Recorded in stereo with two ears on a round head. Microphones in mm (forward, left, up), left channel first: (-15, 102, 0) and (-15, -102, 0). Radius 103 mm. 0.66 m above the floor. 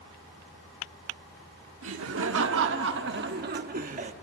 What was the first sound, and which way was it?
Laughter, 60° right (ahead or behind).